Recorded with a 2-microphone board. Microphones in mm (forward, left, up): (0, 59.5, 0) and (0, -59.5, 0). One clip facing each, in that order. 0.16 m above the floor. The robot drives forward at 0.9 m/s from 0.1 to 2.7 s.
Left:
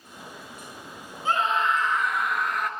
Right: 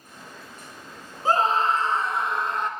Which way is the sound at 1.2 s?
40° right (ahead or behind).